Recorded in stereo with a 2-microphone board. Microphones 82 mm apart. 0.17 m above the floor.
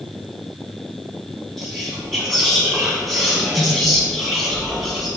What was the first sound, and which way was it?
Whispering, 5° left (ahead or behind).